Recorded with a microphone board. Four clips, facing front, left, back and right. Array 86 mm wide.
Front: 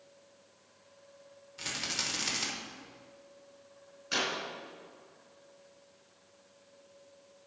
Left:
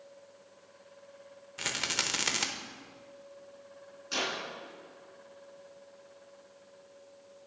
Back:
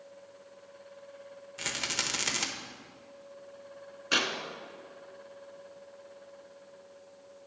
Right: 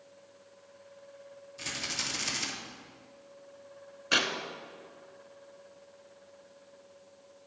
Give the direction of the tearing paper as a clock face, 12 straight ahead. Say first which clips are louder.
Right 4 dB, back 3 dB; 4 o'clock.